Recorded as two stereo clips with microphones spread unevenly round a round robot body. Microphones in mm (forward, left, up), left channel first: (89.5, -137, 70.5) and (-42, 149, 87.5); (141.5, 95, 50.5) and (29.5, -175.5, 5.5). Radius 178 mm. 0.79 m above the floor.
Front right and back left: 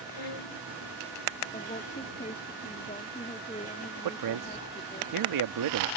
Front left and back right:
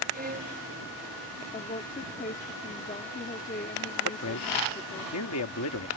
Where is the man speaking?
110° left.